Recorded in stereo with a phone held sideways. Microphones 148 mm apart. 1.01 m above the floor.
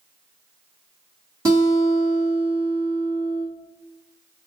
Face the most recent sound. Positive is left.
turn(degrees=-20)  # may be behind; listen again after turning